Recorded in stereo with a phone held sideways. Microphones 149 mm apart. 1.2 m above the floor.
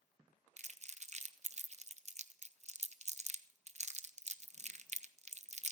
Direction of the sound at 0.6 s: 50° right (ahead or behind).